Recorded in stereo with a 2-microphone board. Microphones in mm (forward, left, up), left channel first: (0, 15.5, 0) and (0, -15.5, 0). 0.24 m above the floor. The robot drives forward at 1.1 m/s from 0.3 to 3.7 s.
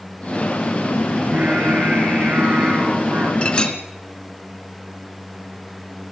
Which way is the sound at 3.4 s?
40° left (ahead or behind).